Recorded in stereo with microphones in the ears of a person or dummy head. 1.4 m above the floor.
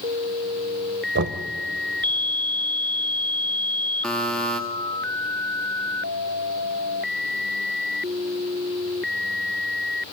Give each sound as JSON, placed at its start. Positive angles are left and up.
{"t": 1.1, "sound": "knocking", "side_deg": -60, "distance_m": 1.0}
{"t": 4.0, "sound": "a buzzer", "side_deg": 5, "distance_m": 1.4}